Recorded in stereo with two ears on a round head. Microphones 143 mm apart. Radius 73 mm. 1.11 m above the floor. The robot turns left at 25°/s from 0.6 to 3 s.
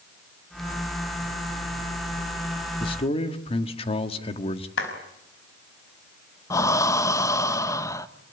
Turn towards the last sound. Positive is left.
turn(degrees=20)  # may be behind; listen again after turning